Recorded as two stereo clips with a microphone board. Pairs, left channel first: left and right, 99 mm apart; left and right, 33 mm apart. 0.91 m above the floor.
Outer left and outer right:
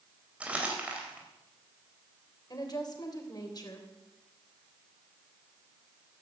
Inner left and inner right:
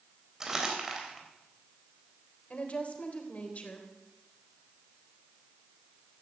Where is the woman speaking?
45° left (ahead or behind), 3.5 m.